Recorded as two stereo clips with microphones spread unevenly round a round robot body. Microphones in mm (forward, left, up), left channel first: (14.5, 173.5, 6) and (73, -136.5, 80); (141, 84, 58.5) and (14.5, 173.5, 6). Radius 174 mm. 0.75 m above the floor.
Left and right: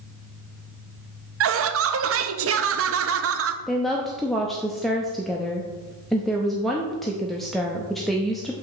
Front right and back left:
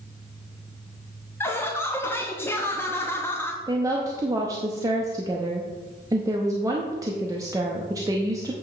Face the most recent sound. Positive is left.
turn(degrees=175)